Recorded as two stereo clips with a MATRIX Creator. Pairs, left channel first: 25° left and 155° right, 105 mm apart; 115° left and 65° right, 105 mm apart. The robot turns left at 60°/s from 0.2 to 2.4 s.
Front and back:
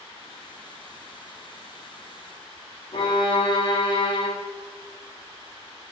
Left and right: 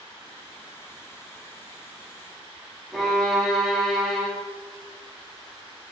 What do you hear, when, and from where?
2.9 s a violin: 20° left, 0.6 m